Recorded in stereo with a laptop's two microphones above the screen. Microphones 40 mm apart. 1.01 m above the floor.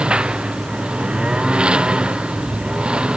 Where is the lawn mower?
25° right (ahead or behind).